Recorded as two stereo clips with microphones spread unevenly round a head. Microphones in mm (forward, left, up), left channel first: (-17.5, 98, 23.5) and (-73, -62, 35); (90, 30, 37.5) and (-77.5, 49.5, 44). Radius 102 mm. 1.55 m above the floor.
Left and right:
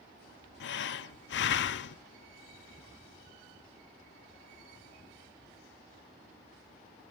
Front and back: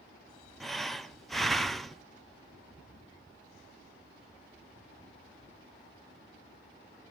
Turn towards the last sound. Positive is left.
turn(degrees=85)